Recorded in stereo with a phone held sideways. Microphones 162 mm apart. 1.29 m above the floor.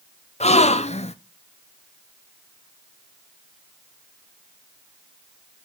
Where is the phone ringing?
I don't hear a phone ringing.